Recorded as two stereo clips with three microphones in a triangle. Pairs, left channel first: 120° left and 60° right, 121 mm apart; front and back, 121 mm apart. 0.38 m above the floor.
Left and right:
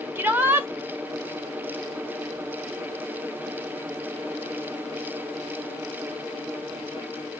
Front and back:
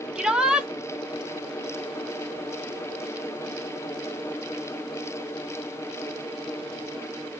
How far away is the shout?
About 0.9 m.